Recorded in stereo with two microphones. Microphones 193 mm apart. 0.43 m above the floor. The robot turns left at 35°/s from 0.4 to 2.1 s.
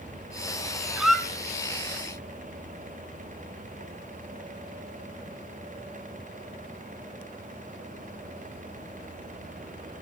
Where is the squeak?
5° right (ahead or behind), 1.5 m; by 1.2 s 5° left (ahead or behind), 1.5 m.